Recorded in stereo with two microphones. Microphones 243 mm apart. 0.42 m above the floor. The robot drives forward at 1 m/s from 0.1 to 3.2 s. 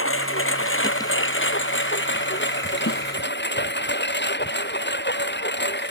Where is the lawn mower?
55° left (ahead or behind); by 5.9 s 45° left (ahead or behind).